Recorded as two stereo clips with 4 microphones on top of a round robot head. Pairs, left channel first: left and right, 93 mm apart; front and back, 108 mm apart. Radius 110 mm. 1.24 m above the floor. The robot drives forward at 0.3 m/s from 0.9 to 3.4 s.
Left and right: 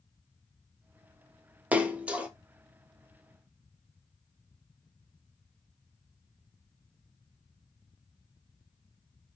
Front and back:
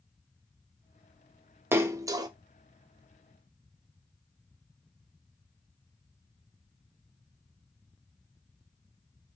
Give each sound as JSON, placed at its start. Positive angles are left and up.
{"t": 1.7, "sound": "a splash", "azimuth_deg": -145, "distance_m": 0.5}